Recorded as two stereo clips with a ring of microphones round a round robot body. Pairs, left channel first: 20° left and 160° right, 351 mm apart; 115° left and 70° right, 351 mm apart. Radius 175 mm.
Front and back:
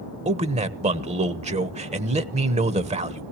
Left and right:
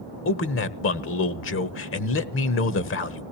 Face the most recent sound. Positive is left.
turn(degrees=140)